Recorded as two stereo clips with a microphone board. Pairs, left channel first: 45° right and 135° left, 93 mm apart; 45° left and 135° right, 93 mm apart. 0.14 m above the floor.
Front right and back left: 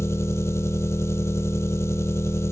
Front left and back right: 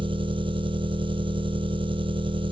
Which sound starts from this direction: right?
An engine running, at 0.0 s.